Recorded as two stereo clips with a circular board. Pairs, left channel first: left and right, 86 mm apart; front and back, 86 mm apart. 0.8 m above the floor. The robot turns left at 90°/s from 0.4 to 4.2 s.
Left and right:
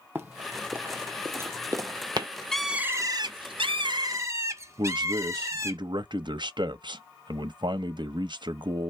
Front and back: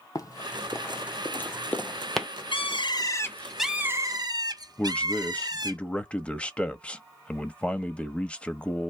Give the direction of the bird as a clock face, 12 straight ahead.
12 o'clock.